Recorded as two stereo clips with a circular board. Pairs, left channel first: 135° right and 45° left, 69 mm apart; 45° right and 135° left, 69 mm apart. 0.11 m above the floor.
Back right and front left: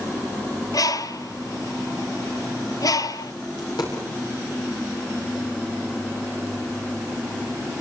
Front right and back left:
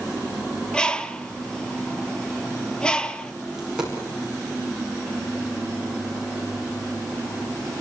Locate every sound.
0.7 s a bird: 120° right, 0.8 m
3.6 s a dropped coin: 145° right, 8.5 m